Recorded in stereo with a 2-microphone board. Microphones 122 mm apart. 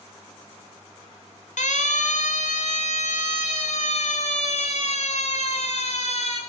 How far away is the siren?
About 2 m.